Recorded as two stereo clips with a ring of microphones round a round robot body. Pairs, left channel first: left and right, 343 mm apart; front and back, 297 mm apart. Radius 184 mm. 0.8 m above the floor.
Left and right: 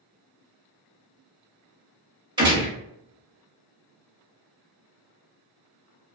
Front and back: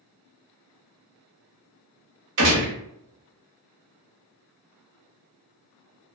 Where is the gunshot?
165° right, 1.0 m.